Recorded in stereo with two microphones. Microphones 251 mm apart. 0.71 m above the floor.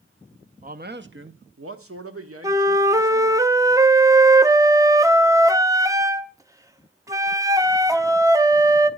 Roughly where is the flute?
Centre.